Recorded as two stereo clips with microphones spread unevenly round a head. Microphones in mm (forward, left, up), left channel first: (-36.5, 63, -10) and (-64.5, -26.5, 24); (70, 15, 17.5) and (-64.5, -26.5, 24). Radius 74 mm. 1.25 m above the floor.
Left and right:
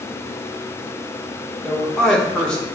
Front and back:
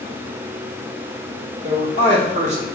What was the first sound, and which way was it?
A man speaking, 155° left.